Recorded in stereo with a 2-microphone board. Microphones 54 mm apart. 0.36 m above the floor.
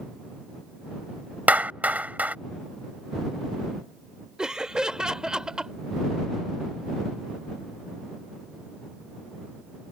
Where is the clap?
30° right (ahead or behind).